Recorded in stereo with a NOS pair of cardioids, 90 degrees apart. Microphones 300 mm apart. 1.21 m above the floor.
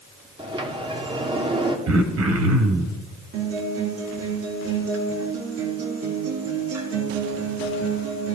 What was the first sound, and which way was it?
A sliding door, 15° right.